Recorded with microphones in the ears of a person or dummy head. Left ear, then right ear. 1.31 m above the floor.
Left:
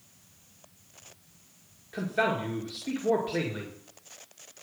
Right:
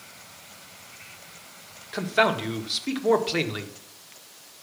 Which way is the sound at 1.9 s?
55° right (ahead or behind).